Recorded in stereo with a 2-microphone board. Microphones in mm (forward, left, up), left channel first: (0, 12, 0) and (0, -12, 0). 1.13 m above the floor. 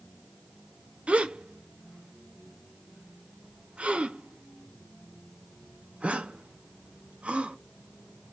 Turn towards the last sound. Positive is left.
turn(degrees=-75)  # may be behind; listen again after turning